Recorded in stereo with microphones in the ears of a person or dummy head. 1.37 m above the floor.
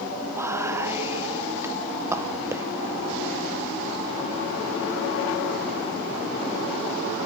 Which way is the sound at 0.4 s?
20° right (ahead or behind).